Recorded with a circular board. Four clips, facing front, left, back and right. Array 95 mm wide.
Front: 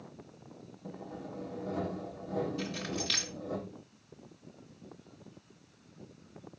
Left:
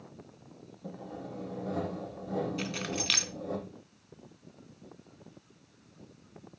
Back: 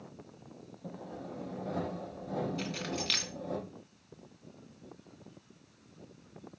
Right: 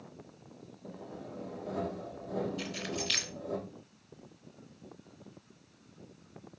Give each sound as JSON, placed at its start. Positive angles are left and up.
{"t": 0.8, "sound": "sawing", "azimuth_deg": 135, "distance_m": 5.5}
{"t": 2.6, "sound": "keys jangling", "azimuth_deg": 105, "distance_m": 2.5}